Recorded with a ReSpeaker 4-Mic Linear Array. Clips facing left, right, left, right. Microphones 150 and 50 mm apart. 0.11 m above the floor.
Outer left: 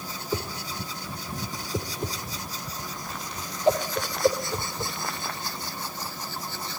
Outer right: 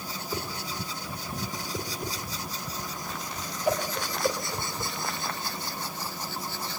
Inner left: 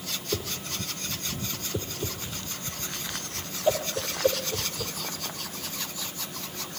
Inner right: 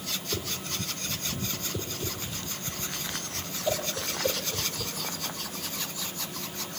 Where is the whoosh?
25° left (ahead or behind), 4 m.